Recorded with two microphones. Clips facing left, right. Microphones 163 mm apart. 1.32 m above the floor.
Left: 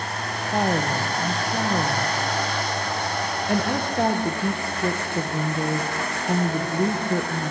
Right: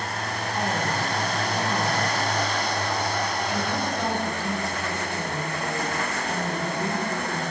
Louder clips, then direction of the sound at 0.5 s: Left 5 dB; 55° left (ahead or behind).